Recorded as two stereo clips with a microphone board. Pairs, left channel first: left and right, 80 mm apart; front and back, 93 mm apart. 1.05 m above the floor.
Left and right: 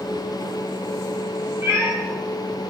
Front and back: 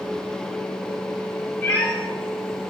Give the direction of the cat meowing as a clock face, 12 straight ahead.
2 o'clock.